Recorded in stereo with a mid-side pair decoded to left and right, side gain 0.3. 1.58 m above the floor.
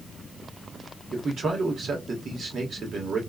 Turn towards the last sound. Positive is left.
turn(degrees=-70)